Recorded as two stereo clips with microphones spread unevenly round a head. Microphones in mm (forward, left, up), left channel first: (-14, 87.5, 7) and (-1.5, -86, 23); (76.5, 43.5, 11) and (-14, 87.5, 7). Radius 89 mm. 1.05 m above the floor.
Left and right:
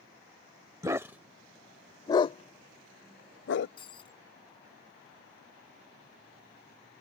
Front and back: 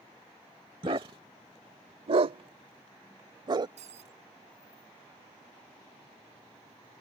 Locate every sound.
0.8 s a dog barking: 150° right; by 3.7 s 110° left
3.8 s breaking glass: 160° left